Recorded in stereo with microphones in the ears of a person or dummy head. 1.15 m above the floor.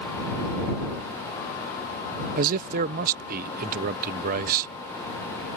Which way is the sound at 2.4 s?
55° right (ahead or behind).